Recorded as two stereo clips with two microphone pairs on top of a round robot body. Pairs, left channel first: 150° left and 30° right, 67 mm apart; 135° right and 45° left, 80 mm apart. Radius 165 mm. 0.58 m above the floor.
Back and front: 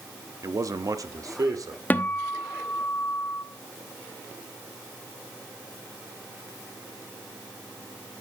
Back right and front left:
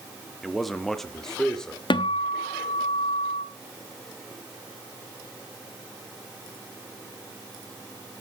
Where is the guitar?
140° right, 1.2 m.